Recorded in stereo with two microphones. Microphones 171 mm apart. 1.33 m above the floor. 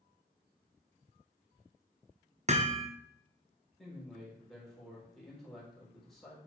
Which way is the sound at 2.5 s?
40° right (ahead or behind).